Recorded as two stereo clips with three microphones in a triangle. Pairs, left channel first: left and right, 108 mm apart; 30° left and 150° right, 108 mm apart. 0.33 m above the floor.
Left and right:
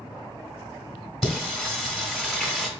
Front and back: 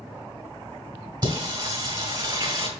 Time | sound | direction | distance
1.2 | singing | straight behind | 1.6 m